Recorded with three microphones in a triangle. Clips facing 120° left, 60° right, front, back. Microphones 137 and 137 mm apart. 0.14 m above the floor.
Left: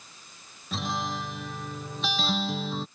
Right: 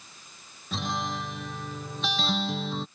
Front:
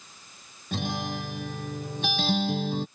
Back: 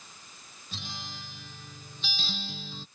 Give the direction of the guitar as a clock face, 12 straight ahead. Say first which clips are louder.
Even, front 14 dB; 11 o'clock.